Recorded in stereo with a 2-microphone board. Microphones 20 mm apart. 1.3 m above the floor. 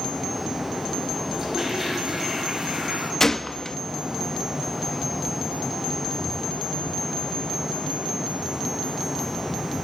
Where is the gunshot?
20° left (ahead or behind), 0.8 m.